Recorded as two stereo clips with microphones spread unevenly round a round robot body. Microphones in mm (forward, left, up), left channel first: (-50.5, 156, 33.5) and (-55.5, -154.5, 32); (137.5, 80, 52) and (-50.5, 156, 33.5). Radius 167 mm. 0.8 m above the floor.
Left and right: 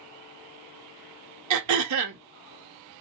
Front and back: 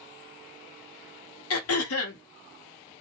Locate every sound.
1.5 s throat clearing: 50° right, 0.7 m